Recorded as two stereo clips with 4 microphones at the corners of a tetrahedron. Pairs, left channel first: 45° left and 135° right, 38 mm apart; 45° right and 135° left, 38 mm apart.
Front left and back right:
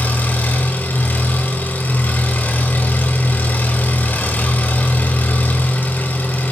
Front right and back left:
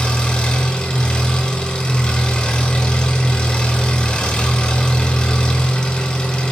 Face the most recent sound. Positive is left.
turn(degrees=25)